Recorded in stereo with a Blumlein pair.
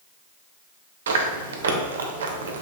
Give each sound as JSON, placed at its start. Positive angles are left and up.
{"t": 1.1, "sound": "chewing", "azimuth_deg": -65, "distance_m": 0.9}